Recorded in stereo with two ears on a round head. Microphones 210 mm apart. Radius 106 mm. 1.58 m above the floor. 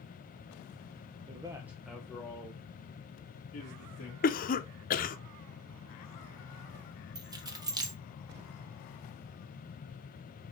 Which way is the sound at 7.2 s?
15° right (ahead or behind).